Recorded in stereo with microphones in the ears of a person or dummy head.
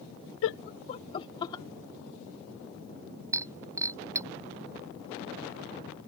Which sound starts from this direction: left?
Laughter, at 0.4 s.